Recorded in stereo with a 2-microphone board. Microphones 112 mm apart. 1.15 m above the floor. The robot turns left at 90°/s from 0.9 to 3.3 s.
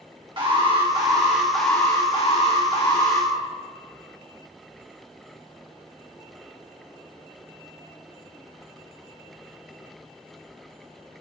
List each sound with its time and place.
0.4 s an alarm: 125° right, 1.8 m; by 3.3 s 20° left, 1.8 m